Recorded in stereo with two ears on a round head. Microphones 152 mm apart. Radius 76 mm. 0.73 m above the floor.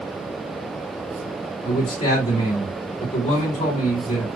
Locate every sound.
1.6 s a man speaking: 35° left (ahead or behind), 3 m